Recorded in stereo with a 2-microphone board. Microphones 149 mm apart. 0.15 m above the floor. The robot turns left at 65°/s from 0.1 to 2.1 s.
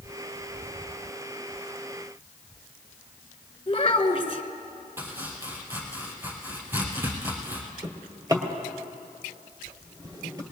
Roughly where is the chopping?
Centre.